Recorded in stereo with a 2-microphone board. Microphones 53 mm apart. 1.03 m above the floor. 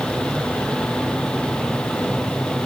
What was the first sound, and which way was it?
Only background noise.